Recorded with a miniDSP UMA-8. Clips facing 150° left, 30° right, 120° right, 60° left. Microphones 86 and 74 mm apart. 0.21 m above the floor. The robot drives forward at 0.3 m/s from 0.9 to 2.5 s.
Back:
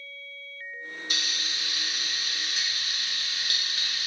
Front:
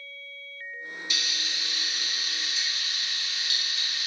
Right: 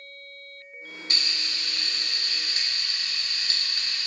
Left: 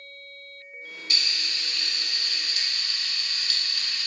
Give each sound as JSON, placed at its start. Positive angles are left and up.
{"t": 1.1, "sound": "frying", "azimuth_deg": -170, "distance_m": 0.6}